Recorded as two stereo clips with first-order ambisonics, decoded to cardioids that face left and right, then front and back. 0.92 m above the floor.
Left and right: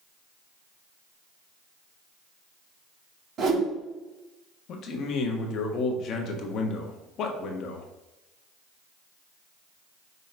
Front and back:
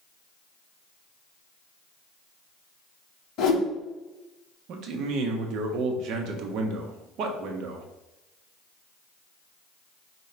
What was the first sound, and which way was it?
A whoosh, 40° right.